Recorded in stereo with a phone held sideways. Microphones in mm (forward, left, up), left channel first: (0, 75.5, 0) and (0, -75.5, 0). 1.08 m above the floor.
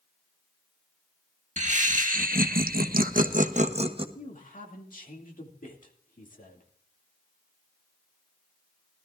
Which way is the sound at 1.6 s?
55° right (ahead or behind).